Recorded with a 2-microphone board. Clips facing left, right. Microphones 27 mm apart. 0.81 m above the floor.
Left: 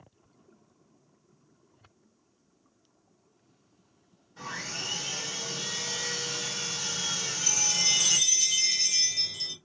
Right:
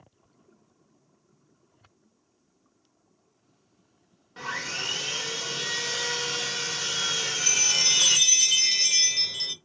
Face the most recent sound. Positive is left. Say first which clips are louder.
# right 4 dB
turn(degrees=-45)  # may be behind; listen again after turning